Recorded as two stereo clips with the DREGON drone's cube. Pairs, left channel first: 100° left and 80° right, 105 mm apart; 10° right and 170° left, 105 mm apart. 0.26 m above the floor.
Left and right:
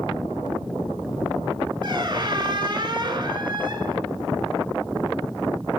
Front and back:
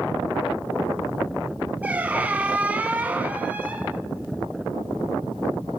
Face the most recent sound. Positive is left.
turn(degrees=-115)